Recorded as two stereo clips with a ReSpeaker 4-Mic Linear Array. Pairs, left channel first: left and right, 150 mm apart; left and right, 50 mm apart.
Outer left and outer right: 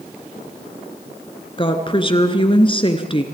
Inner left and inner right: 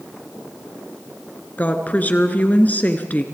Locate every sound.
1.6 s a woman speaking: 35° left (ahead or behind), 2 m